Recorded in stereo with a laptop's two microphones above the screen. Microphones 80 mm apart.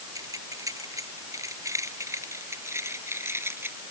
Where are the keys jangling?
45° right (ahead or behind); by 3.8 s 30° right (ahead or behind).